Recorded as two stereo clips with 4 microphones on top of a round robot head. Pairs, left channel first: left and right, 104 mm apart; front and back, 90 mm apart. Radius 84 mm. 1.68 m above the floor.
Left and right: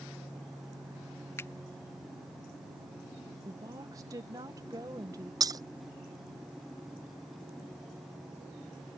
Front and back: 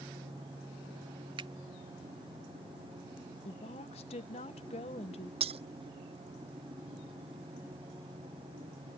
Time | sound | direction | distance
1.4 | a finger snap | 155° left | ?
3.5 | a woman speaking | 25° right | ?
5.4 | breaking glass | 145° right | ?